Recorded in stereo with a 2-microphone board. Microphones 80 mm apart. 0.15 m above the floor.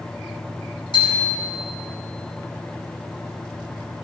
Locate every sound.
0.9 s a bicycle bell: 80° left, 5 m